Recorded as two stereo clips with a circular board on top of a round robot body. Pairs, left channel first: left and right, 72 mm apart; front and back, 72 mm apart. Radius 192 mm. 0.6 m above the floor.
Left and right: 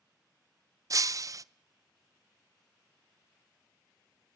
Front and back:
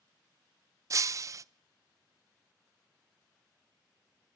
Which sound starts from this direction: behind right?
Breaking glass, at 0.9 s.